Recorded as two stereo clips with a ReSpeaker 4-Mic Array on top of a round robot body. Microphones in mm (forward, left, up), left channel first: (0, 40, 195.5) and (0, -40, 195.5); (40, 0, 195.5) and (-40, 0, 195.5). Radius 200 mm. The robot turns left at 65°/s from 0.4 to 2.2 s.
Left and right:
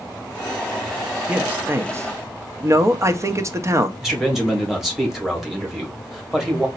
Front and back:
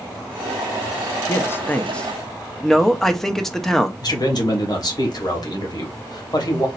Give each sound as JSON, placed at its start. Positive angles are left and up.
{"t": 1.3, "sound": "a man speaking", "azimuth_deg": -25, "distance_m": 1.0}
{"t": 4.0, "sound": "a man speaking", "azimuth_deg": -5, "distance_m": 2.0}